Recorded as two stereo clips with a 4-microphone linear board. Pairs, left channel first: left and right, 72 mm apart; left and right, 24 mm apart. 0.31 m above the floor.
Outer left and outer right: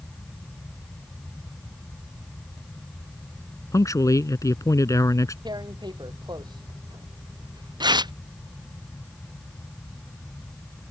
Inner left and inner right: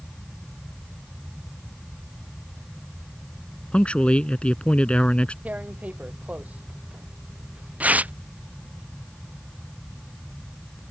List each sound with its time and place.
3.7 s a man speaking: 50° left (ahead or behind)
5.5 s tearing paper: 90° right